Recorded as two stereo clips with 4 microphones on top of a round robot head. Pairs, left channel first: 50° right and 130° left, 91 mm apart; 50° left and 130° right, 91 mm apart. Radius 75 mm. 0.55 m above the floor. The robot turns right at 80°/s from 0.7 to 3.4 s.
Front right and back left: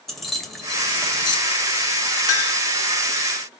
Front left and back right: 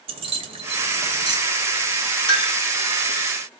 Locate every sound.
0.1 s keys jangling: 140° right, 2 m; by 1.4 s 85° right, 2 m
2.3 s a clink: 5° left, 3 m; by 2.6 s 30° left, 3 m